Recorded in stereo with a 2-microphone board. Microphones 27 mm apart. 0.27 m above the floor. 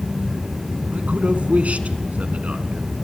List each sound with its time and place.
0.9 s a man speaking: 65° right (ahead or behind), 2.5 m